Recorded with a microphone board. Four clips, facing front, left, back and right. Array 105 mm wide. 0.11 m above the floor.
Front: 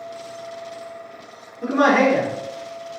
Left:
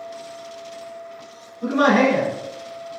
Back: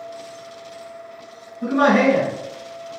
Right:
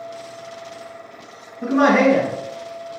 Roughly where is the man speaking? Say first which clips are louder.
Right 2 dB, back 1 dB; right.